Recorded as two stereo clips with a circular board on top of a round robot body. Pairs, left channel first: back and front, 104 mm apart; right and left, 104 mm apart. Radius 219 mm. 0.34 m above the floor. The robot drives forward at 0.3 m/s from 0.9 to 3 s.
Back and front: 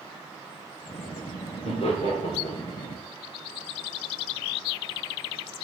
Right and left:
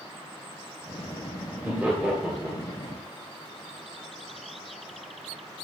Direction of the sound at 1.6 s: 165° left.